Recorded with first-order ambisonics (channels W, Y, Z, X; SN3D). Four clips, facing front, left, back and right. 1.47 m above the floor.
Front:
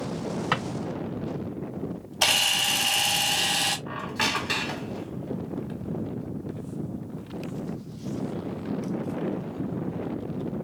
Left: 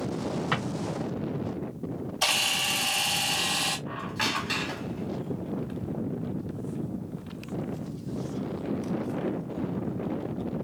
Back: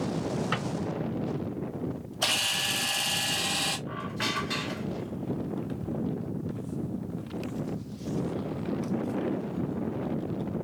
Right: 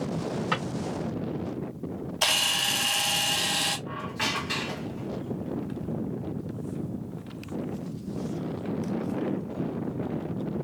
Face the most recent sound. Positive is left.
turn(degrees=5)